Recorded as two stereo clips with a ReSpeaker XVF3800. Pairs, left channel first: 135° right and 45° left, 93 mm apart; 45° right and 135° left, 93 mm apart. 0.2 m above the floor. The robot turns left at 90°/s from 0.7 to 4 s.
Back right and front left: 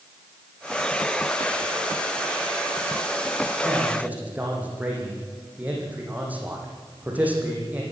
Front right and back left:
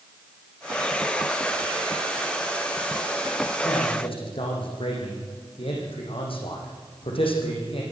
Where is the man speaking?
5° left, 8 m; by 7.8 s 30° right, 8 m.